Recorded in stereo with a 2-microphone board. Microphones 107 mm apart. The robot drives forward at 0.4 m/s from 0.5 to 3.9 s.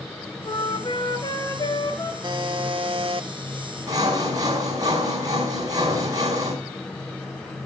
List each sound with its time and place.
0.5 s a flute: 50° left (ahead or behind), 1.4 m; by 2.1 s 35° left (ahead or behind), 1.9 m
2.2 s a buzzer: 45° right (ahead or behind), 1.0 m; by 3.3 s 55° right (ahead or behind), 0.9 m
3.9 s sawing: 35° right (ahead or behind), 5 m